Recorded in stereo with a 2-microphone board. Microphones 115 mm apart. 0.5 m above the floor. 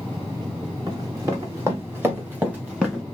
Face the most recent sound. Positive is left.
turn(degrees=-5)  # may be behind; listen again after turning